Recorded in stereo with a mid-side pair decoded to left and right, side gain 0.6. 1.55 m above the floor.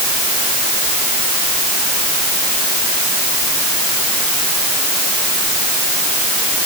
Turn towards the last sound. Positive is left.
No sound to turn to.